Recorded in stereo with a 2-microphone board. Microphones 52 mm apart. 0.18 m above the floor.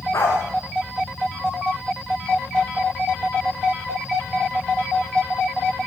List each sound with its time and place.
0.1 s a dog barking: 70° left (ahead or behind), 7.5 m